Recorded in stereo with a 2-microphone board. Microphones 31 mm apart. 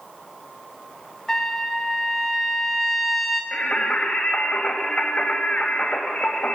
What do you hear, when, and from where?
1.3 s a trumpet: 10° left (ahead or behind), 2 m
3.5 s singing: 45° left (ahead or behind), 3 m